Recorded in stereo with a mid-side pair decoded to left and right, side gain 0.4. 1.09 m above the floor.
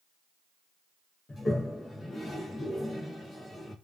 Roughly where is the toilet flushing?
Ahead left.